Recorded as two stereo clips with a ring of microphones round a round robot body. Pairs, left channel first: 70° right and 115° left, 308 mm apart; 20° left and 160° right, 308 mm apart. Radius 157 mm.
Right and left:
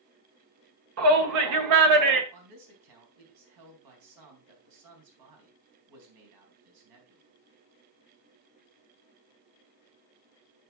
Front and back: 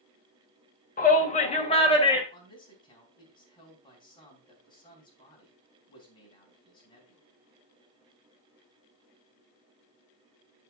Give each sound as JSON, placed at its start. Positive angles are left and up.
{"t": 1.0, "sound": "a shout", "azimuth_deg": 85, "distance_m": 1.8}
{"t": 2.3, "sound": "a man speaking", "azimuth_deg": 100, "distance_m": 4.0}